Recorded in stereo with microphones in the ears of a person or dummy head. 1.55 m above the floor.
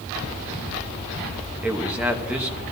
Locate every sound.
1.6 s a man speaking: 10° right (ahead or behind), 1.0 m